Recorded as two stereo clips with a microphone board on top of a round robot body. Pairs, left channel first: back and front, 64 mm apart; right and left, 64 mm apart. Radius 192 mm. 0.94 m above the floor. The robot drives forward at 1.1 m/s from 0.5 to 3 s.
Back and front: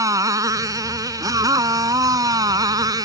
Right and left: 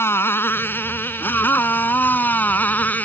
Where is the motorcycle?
35° right; by 3.0 s 25° right.